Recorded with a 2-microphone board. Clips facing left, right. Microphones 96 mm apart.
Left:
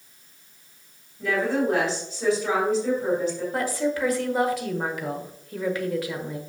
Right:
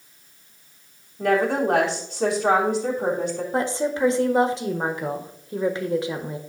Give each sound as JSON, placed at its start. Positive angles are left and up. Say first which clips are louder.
{"t": 1.2, "sound": "a woman speaking", "louder": "right 3 dB", "side_deg": -70, "distance_m": 3.5}
{"t": 3.5, "sound": "a woman speaking", "louder": "right 4 dB", "side_deg": -25, "distance_m": 1.3}